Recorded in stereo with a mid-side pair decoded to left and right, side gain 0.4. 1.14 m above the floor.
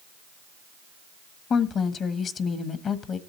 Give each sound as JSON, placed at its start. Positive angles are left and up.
{"t": 1.5, "sound": "a woman speaking", "azimuth_deg": 65, "distance_m": 1.4}